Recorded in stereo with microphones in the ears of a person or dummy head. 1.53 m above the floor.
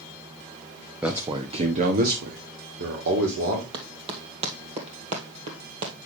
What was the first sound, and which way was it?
A man speaking, 5° right (ahead or behind).